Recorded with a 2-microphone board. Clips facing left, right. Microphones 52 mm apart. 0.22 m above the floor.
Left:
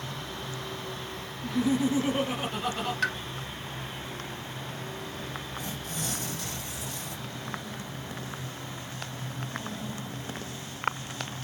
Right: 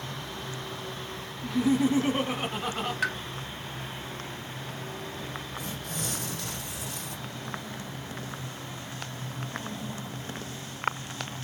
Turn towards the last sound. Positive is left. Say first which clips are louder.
# even
turn(degrees=-65)  # may be behind; listen again after turning